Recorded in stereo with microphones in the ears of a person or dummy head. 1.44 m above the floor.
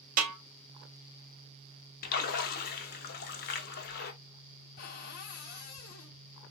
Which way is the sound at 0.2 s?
50° right (ahead or behind).